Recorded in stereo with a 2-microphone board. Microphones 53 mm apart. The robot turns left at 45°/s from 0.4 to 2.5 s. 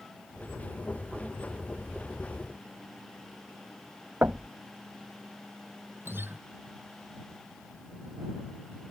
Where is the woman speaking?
I don't hear a woman speaking.